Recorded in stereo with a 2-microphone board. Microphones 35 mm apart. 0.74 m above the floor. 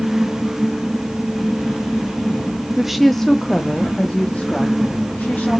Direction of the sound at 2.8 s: 10° right (ahead or behind).